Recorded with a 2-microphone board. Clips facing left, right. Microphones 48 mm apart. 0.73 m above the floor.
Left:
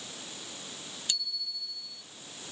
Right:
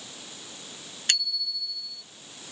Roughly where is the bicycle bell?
Right.